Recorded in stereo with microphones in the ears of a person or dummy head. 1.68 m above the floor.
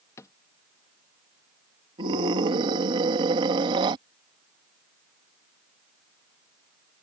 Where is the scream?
25° right (ahead or behind).